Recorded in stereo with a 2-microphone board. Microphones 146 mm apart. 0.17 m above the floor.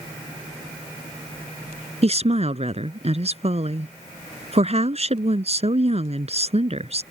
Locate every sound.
2.0 s a woman speaking: 50° right (ahead or behind)